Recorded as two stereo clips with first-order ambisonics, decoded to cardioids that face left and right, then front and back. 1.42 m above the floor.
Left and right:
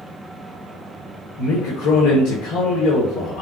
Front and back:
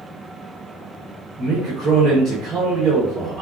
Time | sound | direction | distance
1.4 | a man speaking | 120° left | 1.0 m